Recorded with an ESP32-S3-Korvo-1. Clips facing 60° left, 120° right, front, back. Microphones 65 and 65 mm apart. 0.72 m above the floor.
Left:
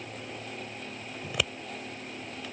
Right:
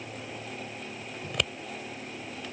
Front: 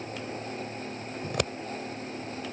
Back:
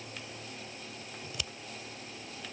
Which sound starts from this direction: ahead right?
Scissors, at 1.2 s.